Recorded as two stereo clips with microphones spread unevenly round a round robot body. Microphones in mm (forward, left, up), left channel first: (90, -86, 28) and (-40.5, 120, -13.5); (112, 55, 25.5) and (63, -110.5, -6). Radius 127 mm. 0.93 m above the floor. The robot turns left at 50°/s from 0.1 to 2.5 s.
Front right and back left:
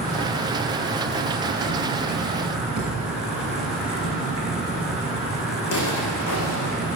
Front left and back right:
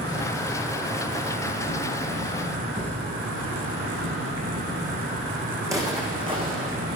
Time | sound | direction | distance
0.0 | an insect | 10° left | 4 m
2.8 | a thud | straight behind | 3.5 m
5.6 | footsteps | 30° right | 4 m